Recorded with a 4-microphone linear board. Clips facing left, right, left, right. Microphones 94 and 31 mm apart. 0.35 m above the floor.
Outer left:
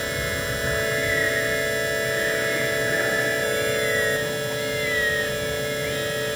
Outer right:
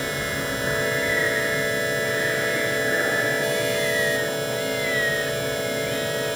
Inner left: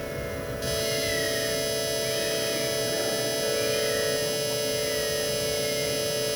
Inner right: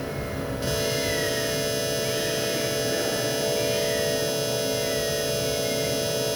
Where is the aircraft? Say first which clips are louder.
Even, inner right 2 dB; 10° right (ahead or behind).